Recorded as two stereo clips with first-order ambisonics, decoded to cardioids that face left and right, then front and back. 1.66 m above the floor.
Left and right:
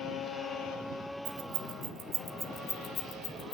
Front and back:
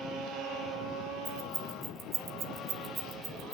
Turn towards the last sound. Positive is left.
turn(degrees=110)